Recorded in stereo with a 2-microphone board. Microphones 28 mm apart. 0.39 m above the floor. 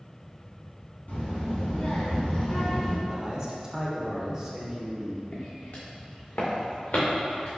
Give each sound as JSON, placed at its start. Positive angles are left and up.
{"t": 1.1, "sound": "a child speaking", "side_deg": 65, "distance_m": 2.0}
{"t": 3.1, "sound": "a man speaking", "side_deg": -25, "distance_m": 0.8}
{"t": 5.3, "sound": "footsteps", "side_deg": 75, "distance_m": 1.3}